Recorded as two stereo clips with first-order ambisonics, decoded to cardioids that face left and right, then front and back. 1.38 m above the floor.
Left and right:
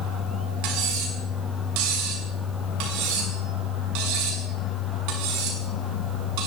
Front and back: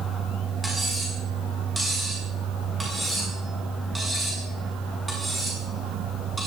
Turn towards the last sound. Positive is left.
turn(degrees=-95)